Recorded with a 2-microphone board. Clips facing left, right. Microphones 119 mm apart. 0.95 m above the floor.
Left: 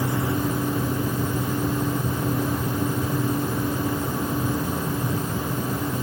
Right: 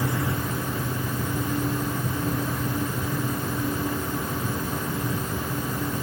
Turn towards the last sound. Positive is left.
No sound to turn to.